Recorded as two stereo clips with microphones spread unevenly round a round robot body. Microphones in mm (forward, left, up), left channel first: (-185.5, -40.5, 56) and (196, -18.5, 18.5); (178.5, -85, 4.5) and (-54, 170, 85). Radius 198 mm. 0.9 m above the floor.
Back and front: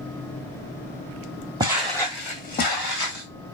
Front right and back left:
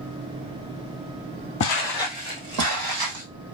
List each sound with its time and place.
1.6 s footsteps: 75° right, 0.9 m; by 3.2 s 125° left, 2.5 m